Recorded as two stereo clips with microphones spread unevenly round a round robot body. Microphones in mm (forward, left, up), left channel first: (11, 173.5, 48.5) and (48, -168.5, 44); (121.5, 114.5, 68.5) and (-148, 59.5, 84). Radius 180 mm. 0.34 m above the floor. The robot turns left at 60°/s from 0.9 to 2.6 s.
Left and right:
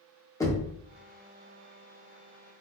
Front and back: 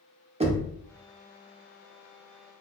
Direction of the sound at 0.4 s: 160° left.